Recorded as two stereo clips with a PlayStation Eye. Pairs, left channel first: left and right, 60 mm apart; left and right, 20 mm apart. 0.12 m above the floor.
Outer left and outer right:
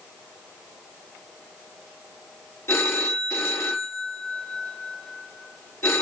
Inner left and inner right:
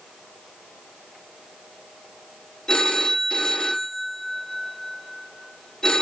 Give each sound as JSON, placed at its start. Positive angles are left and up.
{"t": 2.7, "sound": "a phone ringing", "side_deg": 50, "distance_m": 1.0}